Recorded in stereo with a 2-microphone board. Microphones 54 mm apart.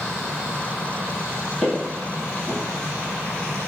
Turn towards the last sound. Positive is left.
turn(degrees=5)  # may be behind; listen again after turning